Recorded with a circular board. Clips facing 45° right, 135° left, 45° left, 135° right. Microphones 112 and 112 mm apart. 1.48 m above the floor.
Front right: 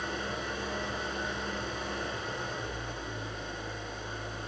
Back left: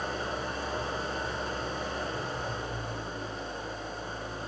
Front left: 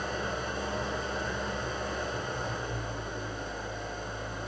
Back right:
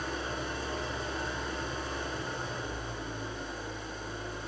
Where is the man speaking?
No man speaking in this recording.